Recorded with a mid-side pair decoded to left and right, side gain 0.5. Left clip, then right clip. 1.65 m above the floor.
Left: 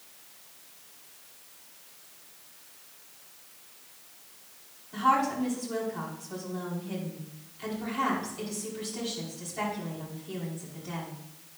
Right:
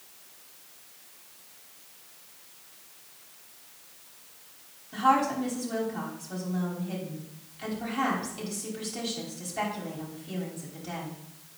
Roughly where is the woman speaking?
Ahead right.